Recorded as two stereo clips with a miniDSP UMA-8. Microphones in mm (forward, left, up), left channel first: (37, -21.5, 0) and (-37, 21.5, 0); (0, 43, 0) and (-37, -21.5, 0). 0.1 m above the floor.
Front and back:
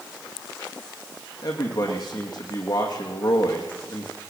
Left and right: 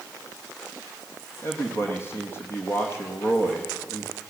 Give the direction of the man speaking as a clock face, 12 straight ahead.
12 o'clock.